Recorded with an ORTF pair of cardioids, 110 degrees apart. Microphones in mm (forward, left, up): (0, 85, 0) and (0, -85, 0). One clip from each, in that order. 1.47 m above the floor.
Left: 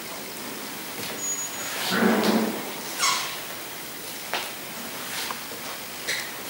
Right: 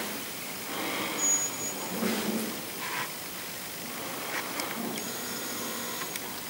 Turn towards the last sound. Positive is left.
turn(degrees=-5)